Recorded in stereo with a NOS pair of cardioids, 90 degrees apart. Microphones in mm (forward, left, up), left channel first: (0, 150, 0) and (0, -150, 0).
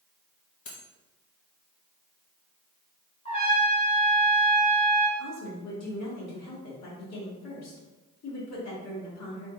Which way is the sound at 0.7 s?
55° left.